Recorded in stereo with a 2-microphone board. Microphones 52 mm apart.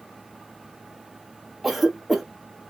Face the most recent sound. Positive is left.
turn(degrees=0)  # may be behind; listen again after turning